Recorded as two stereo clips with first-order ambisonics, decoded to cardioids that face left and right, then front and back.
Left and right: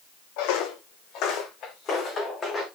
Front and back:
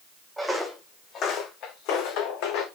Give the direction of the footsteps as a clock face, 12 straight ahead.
9 o'clock.